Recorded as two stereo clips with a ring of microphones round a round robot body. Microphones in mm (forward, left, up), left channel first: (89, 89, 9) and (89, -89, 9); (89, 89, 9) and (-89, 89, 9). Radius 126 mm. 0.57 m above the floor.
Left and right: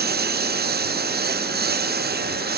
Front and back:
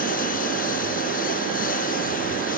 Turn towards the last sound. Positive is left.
turn(degrees=-60)